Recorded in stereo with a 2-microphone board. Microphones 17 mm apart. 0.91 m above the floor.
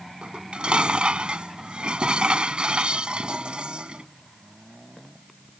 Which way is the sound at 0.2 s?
70° right (ahead or behind).